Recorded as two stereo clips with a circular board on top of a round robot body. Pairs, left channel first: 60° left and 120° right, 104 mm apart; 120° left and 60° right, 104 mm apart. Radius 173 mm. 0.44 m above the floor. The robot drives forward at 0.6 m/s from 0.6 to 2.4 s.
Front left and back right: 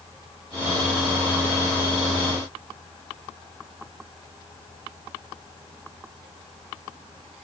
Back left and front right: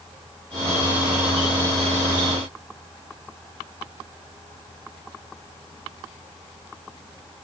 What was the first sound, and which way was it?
Only background noise.